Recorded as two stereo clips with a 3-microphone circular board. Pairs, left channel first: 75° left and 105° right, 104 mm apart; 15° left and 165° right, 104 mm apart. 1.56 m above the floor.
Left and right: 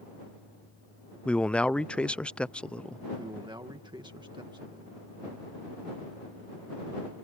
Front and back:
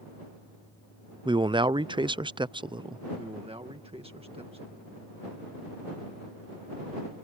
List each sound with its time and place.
1.2 s a man speaking: 155° left
3.2 s a man speaking: 145° right